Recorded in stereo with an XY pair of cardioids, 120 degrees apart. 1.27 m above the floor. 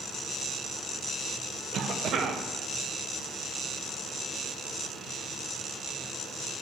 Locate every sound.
1.7 s a cough: 50° right, 0.7 m